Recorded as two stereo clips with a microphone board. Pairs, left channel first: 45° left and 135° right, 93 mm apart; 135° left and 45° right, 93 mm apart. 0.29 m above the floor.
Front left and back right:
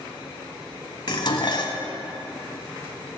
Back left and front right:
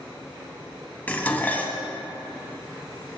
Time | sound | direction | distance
1.1 | dishes clattering | 65° left | 1.2 m